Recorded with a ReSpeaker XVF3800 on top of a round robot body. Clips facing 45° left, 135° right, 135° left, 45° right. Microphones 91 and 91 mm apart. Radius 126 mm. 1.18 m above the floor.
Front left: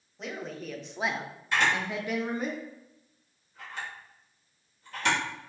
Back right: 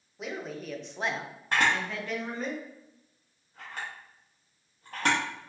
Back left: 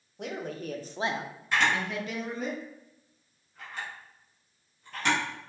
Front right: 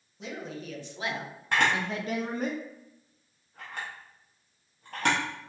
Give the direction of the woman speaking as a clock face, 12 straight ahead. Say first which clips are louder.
Back right 1 dB, back left 3 dB; 7 o'clock.